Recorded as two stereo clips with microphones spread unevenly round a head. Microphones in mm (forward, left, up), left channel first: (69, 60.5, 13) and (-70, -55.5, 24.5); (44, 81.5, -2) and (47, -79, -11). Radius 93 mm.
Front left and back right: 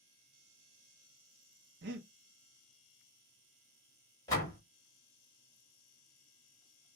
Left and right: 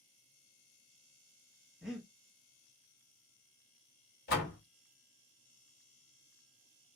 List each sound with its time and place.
1.8 s breathing: straight behind, 0.8 m
4.3 s a door slam: 115° left, 1.6 m